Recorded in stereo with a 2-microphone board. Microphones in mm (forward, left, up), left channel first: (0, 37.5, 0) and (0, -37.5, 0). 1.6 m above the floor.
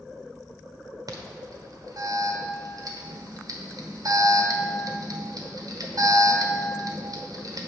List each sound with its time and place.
1.1 s an alarm: 55° right (ahead or behind), 1.1 m